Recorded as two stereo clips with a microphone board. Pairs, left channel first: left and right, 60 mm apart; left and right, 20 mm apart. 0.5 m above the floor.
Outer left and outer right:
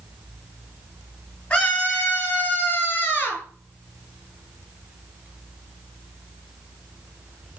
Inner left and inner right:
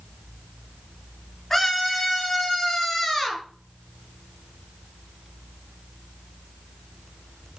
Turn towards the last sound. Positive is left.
turn(degrees=35)  # may be behind; listen again after turning